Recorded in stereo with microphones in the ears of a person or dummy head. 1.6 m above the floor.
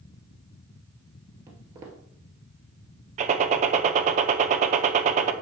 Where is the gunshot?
40° right (ahead or behind), 0.7 m.